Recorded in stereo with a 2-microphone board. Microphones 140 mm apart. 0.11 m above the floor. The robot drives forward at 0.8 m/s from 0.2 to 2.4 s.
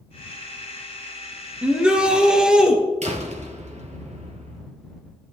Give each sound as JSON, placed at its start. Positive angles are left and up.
{"t": 1.6, "sound": "a shout", "side_deg": -10, "distance_m": 1.4}
{"t": 3.0, "sound": "a door slam", "side_deg": -55, "distance_m": 1.5}